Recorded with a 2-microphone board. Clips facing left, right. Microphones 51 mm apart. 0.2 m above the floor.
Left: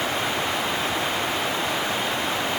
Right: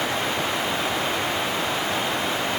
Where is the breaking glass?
No breaking glass in this recording.